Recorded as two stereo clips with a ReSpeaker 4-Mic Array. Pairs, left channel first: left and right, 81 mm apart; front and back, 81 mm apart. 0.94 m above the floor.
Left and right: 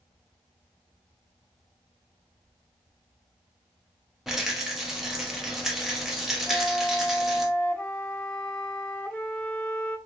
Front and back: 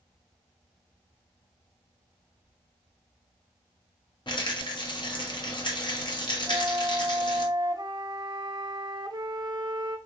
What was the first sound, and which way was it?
A rattle, 5° right.